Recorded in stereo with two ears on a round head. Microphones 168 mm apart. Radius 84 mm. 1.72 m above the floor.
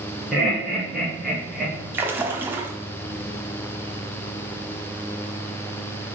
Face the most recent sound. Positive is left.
turn(degrees=-10)  # may be behind; listen again after turning